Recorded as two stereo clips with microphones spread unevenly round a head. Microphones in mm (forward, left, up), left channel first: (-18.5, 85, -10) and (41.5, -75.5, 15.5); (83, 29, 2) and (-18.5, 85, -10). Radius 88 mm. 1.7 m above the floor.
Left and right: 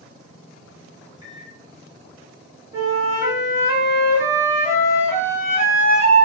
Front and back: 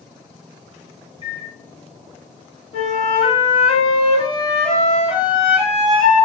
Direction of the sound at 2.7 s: 10° right.